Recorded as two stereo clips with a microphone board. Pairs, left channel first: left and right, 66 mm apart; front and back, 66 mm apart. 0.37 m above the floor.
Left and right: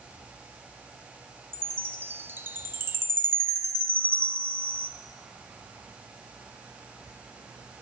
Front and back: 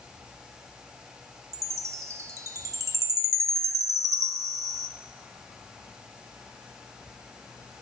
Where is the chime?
140° right, 0.7 m.